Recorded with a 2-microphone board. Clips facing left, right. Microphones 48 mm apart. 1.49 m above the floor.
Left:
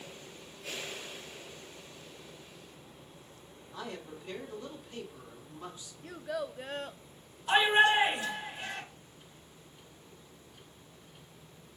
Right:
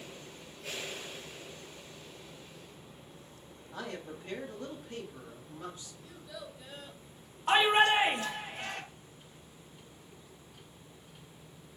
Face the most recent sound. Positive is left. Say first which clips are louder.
# even
turn(degrees=-55)  # may be behind; listen again after turning